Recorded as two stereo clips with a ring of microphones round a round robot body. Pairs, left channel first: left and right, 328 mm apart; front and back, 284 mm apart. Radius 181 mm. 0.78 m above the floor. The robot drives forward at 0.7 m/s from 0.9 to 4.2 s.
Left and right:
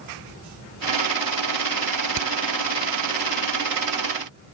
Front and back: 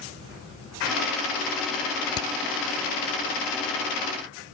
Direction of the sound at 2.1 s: 50° right.